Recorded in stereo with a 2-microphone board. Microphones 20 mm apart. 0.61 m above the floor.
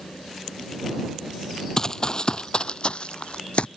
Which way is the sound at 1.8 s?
30° left (ahead or behind).